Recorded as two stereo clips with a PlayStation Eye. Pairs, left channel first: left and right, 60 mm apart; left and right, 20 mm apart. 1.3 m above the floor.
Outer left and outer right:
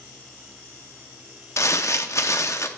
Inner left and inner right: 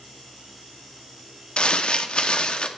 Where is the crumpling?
55° left (ahead or behind), 0.6 m.